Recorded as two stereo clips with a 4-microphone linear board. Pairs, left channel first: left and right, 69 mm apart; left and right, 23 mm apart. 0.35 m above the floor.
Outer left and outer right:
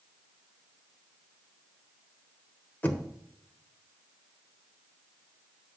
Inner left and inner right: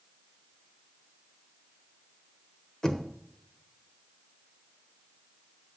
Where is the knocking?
25° left (ahead or behind), 1.0 m.